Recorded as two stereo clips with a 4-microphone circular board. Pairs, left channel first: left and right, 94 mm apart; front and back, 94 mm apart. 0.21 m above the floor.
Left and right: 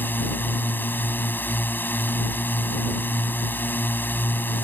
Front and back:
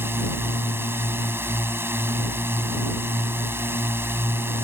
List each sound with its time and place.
0.0 s a drone: 140° left